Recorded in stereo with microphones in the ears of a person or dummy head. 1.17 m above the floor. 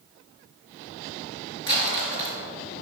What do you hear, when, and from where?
1.7 s crumpling: 25° left (ahead or behind), 3 m